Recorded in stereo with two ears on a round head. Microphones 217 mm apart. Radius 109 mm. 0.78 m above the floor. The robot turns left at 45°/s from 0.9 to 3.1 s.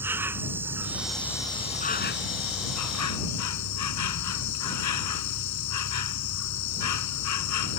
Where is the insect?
170° right; by 7.8 s 90° left.